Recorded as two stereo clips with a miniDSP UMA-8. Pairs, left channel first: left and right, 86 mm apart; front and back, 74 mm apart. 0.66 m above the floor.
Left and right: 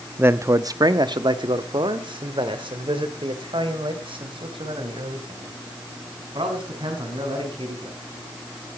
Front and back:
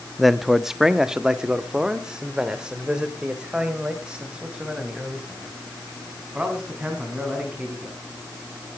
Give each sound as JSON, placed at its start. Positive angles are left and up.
{"t": 0.2, "sound": "a man speaking", "azimuth_deg": -90, "distance_m": 0.6}